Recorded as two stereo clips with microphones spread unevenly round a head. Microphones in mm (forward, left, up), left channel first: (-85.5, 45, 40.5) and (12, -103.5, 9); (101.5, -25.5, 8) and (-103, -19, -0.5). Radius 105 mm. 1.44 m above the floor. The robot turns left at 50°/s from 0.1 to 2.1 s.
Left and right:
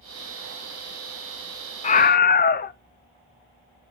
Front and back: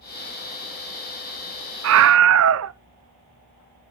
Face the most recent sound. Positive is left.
turn(degrees=165)